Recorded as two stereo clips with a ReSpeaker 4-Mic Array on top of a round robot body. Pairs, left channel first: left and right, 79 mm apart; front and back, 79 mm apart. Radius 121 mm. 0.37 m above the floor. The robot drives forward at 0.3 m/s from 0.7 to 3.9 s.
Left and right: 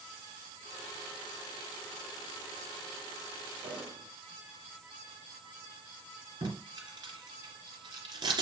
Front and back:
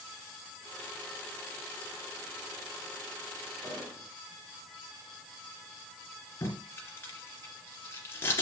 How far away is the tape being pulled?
About 2.5 m.